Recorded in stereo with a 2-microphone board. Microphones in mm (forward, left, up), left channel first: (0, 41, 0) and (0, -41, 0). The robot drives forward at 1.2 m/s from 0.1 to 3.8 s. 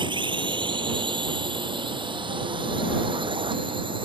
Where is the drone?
75° right (ahead or behind); by 4.0 s 80° right.